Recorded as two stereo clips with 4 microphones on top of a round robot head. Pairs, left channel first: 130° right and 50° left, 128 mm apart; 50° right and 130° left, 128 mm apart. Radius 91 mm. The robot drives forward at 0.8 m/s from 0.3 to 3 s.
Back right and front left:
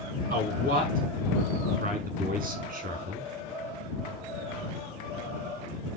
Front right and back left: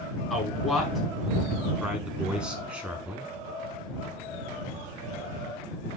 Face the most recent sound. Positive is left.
turn(degrees=55)